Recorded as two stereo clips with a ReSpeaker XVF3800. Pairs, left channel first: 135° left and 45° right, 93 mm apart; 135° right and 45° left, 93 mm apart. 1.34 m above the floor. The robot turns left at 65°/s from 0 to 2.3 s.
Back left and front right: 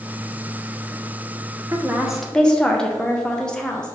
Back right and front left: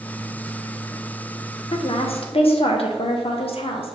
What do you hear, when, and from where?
1.7 s a woman speaking: 105° right, 0.5 m; by 3.9 s 145° right, 0.5 m